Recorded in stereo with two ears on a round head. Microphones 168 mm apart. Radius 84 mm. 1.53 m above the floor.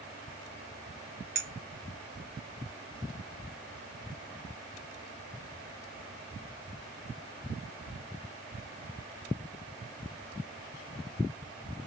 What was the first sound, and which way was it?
A clink, 60° right (ahead or behind).